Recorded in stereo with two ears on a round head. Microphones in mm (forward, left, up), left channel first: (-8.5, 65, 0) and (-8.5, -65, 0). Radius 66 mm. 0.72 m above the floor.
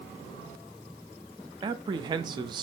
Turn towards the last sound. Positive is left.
turn(degrees=-30)  # may be behind; listen again after turning